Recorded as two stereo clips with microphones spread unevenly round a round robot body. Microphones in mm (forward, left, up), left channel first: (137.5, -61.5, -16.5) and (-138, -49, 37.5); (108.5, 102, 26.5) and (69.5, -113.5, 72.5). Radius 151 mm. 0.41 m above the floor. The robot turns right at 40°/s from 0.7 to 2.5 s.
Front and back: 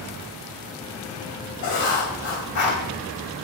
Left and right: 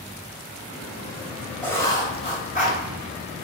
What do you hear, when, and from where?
1.6 s writing: 5° left, 2.5 m; by 2.8 s 40° left, 2.5 m